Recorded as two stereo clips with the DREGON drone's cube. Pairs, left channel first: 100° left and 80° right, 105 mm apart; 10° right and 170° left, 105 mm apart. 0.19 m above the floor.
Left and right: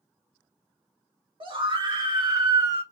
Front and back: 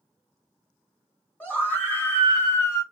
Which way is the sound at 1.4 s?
85° right.